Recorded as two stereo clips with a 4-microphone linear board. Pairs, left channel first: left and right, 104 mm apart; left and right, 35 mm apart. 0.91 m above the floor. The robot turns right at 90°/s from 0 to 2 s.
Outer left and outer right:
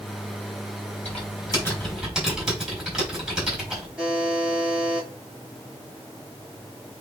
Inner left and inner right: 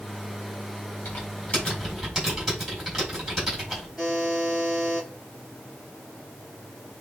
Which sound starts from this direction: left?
Typing on a keyboard, at 1.1 s.